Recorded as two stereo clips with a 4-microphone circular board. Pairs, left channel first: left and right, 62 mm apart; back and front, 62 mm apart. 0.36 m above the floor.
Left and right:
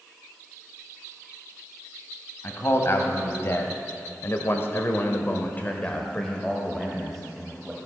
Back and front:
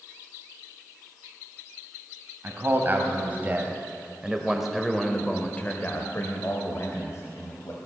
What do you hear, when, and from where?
2.4 s a man speaking: 45° left, 2 m; by 7.8 s straight behind, 1.8 m